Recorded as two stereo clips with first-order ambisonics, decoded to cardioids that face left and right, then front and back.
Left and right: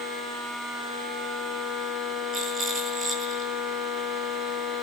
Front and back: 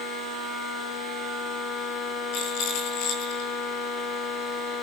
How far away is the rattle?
About 10 m.